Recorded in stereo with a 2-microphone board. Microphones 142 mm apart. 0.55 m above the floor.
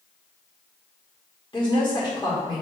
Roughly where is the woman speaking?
Left.